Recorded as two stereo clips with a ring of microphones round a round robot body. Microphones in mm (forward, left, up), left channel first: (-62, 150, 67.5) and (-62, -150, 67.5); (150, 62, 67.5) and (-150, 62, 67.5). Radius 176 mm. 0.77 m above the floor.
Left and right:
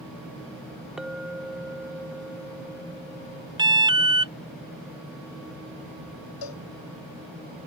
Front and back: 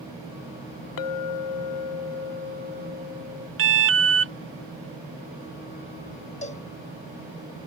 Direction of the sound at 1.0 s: Straight ahead.